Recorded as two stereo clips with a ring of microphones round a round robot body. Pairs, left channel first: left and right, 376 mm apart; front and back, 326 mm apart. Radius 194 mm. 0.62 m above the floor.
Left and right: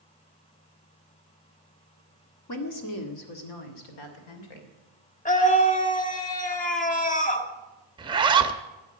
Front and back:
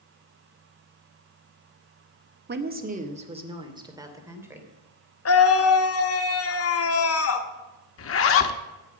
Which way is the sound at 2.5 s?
125° left.